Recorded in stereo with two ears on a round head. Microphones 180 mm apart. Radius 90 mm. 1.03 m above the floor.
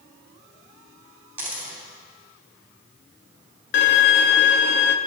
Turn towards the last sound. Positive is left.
turn(degrees=60)  # may be behind; listen again after turning